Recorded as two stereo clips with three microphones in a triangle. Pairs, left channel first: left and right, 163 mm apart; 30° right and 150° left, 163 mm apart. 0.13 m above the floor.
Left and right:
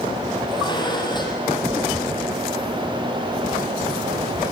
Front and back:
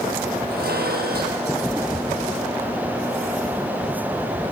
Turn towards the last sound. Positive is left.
turn(degrees=150)